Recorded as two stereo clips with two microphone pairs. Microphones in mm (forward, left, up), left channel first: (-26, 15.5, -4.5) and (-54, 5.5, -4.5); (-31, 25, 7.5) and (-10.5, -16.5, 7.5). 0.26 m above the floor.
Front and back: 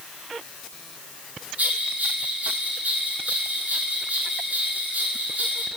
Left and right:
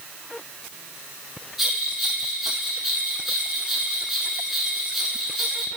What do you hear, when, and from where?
1.6 s a bell: 150° right, 1.7 m